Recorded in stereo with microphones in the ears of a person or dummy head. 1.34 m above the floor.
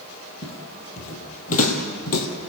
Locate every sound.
0.4 s footsteps: 35° left (ahead or behind), 3 m; by 2.3 s 55° left (ahead or behind), 3 m